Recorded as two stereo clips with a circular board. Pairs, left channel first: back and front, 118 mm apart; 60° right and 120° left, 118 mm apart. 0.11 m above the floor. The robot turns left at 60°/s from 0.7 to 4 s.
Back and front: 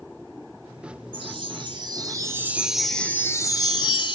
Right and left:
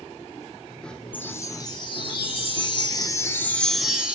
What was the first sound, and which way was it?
A chime, 10° left.